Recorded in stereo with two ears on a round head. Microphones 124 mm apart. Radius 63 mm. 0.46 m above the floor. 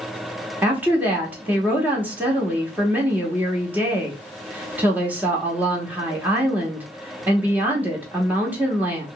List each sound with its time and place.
0.6 s a woman speaking: 15° right (ahead or behind), 1.0 m